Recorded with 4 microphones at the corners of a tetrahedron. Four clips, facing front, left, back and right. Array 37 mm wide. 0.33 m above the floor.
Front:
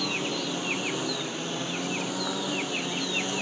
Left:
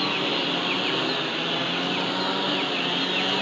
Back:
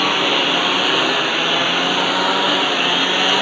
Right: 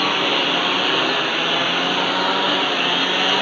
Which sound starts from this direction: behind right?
A lawn mower, at 0.0 s.